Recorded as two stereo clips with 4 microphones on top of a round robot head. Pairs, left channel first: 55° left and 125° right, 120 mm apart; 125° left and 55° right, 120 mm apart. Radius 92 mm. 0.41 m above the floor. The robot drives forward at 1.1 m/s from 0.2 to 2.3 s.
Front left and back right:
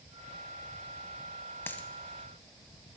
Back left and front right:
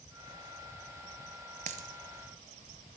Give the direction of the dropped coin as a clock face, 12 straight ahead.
1 o'clock.